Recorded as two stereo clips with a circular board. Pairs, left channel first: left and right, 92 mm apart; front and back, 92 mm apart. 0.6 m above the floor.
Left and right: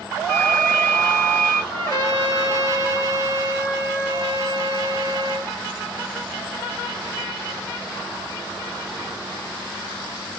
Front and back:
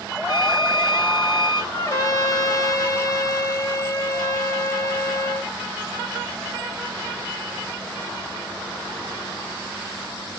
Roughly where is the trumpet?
Ahead left.